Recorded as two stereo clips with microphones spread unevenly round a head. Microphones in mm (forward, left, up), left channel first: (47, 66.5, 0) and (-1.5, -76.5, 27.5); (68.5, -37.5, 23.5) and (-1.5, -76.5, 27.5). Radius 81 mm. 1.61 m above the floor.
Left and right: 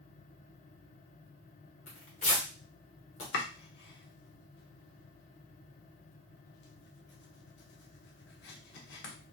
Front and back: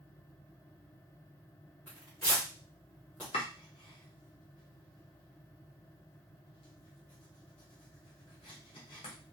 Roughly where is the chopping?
Ahead left.